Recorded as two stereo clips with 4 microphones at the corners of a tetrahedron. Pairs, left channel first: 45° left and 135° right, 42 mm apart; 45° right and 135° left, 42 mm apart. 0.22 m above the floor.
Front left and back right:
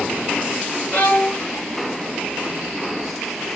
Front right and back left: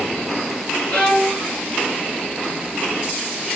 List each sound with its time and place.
0.9 s a violin: 5° left, 1.4 m